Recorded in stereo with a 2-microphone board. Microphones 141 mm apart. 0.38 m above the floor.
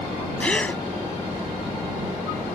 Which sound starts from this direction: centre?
A gasp, at 0.4 s.